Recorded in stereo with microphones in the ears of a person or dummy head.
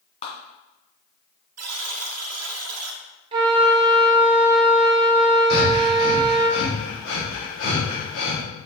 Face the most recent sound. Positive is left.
turn(degrees=65)  # may be behind; listen again after turning